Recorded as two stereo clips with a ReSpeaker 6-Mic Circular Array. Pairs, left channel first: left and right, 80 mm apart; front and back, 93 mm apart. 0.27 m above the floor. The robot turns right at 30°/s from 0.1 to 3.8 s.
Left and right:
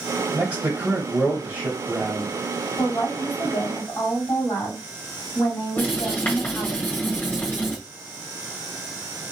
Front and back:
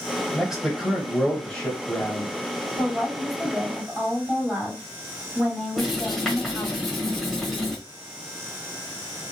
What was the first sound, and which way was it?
A man speaking, 105° right.